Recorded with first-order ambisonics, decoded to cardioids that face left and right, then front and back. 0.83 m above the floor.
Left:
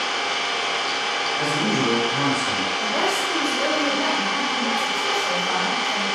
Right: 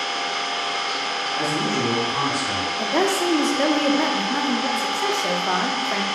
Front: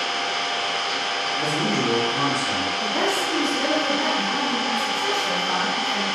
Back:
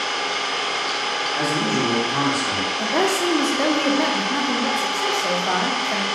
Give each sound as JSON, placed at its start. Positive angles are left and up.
{"t": 0.0, "sound": "an engine running", "azimuth_deg": 140, "distance_m": 0.9}
{"t": 1.4, "sound": "a man speaking", "azimuth_deg": -150, "distance_m": 1.5}
{"t": 2.8, "sound": "a woman speaking", "azimuth_deg": -125, "distance_m": 0.6}